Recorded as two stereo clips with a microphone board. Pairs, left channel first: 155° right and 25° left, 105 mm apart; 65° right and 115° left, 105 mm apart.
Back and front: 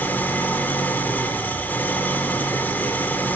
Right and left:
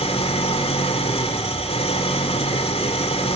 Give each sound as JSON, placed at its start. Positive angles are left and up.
{"t": 0.0, "sound": "an engine running", "azimuth_deg": -85, "distance_m": 2.0}